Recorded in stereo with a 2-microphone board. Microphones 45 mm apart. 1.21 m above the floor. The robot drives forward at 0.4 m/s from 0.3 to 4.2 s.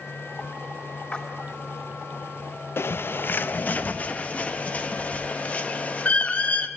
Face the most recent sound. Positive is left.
turn(degrees=30)  # may be behind; listen again after turning